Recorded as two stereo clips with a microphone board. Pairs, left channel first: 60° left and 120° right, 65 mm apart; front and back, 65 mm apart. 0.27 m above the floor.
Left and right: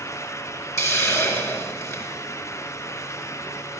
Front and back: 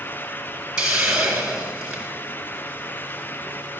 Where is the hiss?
100° left, 3.5 m.